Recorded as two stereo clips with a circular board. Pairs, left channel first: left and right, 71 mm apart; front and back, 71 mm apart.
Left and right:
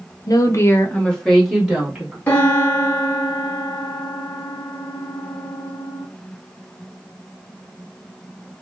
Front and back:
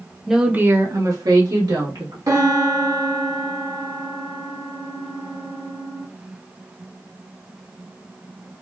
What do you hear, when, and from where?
0.3 s a woman speaking: 90° left, 0.9 m; by 2.2 s 170° right, 2.0 m
2.3 s a piano: 155° left, 1.3 m